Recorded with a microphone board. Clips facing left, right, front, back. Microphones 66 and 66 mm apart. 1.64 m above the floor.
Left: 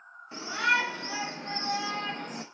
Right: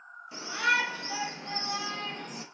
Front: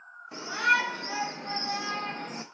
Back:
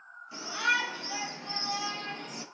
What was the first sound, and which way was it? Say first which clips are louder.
A shout: left 1 dB, front 4 dB; 40° left.